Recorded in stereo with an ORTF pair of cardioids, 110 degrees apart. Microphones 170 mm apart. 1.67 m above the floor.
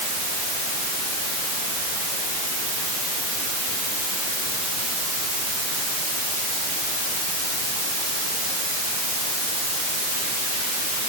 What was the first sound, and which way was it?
Only background noise.